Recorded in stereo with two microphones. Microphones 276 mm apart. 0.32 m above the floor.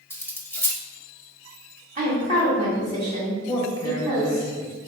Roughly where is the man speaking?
Centre.